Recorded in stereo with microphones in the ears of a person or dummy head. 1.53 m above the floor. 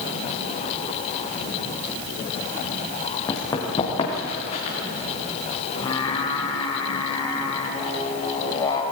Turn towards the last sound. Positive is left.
turn(degrees=20)  # may be behind; listen again after turning